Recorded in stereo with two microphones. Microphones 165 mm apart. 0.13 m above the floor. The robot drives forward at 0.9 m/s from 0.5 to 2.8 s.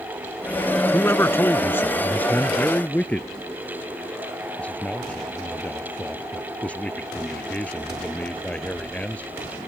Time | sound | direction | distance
0.9 | a man speaking | 15° left (ahead or behind) | ?